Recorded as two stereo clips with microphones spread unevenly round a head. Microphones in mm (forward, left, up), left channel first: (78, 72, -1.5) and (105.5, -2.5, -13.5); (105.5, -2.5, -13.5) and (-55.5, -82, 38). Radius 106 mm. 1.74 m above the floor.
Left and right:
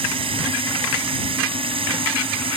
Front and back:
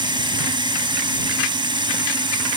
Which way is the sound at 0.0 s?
90° right.